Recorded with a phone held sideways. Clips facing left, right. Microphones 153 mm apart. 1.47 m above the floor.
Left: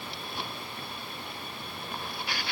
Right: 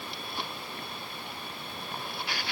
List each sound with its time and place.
Only background noise.